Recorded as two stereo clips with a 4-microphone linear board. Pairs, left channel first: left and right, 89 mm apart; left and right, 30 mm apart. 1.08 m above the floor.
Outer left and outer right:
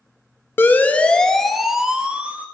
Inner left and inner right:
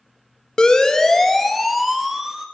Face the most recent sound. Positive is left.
turn(degrees=-15)  # may be behind; listen again after turning